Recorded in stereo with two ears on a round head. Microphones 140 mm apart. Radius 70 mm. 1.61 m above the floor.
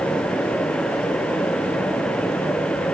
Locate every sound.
Only background noise.